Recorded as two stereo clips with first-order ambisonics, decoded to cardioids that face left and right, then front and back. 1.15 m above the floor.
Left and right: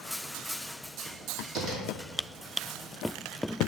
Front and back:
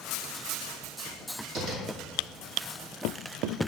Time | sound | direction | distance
1.6 | tapping | 135° right | 1.8 m